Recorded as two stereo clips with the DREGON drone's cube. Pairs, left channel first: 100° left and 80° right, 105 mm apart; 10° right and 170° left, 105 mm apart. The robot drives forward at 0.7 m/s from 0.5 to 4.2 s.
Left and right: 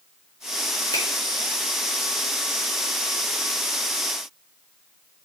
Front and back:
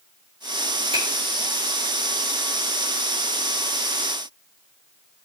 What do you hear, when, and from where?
0.9 s a finger snap: 145° left, 3.5 m